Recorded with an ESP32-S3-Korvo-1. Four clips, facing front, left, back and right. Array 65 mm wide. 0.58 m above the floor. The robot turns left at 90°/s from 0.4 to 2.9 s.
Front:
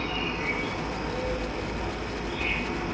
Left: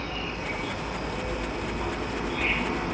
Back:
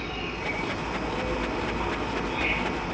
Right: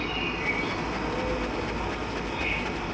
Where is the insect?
45° right, 1.1 m; by 3.0 s 90° left, 1.1 m.